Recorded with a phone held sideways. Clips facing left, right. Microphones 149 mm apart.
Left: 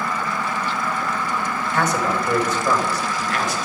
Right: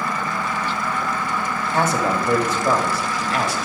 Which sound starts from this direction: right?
A man speaking, at 1.7 s.